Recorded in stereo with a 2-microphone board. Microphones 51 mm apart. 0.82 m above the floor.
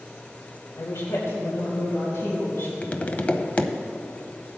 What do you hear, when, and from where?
0.8 s a woman speaking: 75° left (ahead or behind), 2.5 m; by 2.7 s 60° left (ahead or behind), 5 m
2.8 s tapping: 35° left (ahead or behind), 0.7 m